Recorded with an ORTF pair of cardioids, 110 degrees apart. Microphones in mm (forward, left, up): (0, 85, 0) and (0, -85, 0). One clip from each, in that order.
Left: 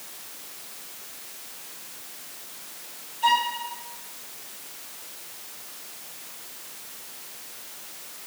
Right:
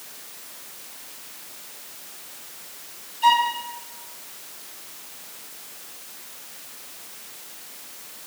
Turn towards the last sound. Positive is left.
turn(degrees=-5)